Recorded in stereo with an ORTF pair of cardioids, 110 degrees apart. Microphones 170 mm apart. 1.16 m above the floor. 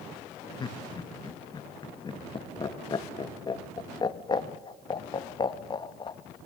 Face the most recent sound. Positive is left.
turn(degrees=30)